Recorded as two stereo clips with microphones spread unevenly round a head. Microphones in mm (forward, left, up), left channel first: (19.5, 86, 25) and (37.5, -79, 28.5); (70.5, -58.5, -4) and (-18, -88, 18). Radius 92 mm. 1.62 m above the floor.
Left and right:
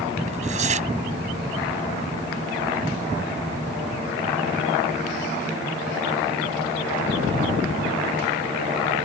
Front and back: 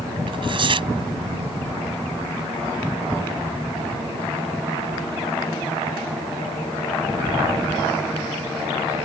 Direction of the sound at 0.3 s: 140° right.